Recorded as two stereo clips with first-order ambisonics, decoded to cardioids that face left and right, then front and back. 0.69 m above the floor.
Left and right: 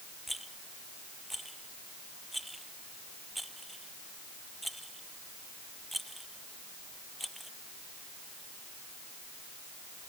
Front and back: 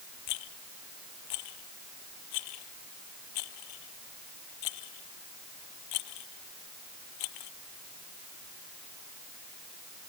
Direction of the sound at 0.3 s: Straight ahead.